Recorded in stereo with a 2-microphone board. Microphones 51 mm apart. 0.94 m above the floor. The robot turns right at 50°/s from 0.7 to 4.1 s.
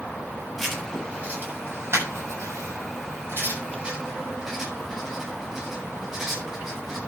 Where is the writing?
5° right (ahead or behind), 7.5 m.